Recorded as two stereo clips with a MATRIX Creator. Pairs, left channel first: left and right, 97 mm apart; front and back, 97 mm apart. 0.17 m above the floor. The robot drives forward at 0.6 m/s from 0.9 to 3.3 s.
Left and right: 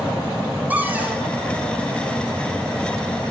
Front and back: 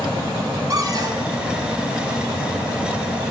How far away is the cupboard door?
About 1.5 m.